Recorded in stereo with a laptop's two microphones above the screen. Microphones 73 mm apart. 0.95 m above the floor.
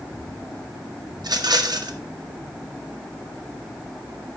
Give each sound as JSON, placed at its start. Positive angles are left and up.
{"t": 1.2, "sound": "a rattle", "side_deg": -70, "distance_m": 0.7}